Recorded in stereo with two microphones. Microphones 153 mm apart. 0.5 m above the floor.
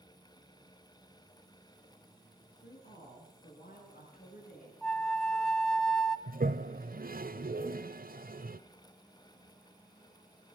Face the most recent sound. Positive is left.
turn(degrees=-70)  # may be behind; listen again after turning